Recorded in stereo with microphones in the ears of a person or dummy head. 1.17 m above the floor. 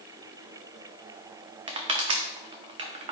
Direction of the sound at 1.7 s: 35° right (ahead or behind).